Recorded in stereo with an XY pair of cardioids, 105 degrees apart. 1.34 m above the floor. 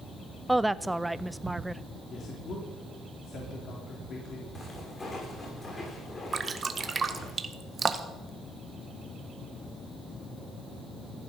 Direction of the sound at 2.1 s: 55° left.